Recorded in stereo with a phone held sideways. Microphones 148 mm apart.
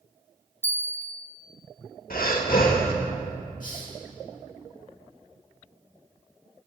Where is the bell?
15° left (ahead or behind), 0.6 m.